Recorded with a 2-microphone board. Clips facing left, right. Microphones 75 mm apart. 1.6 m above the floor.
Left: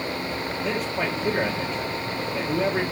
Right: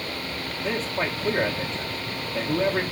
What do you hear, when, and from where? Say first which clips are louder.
0.6 s a man speaking: right 1 dB; 10° left (ahead or behind), 1.3 m